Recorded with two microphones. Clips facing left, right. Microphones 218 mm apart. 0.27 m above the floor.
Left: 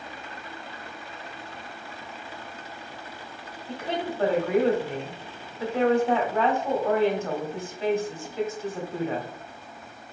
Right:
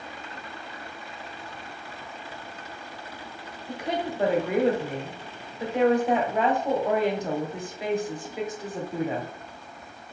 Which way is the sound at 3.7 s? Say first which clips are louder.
Right 1 dB; 15° right (ahead or behind).